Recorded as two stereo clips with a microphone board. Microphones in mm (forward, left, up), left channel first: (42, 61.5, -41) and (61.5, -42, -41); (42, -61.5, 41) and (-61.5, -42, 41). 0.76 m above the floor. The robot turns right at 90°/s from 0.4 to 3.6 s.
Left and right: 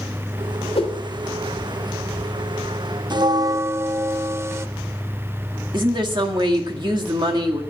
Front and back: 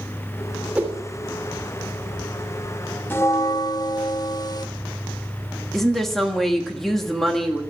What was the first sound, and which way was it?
A whoosh, 90° left.